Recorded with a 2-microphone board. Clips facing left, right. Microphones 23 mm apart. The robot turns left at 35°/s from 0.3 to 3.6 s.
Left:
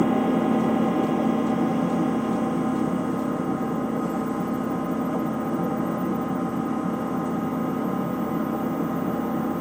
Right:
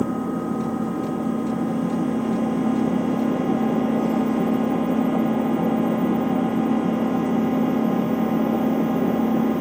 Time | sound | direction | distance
0.0 | an engine running | 65° left | 0.9 m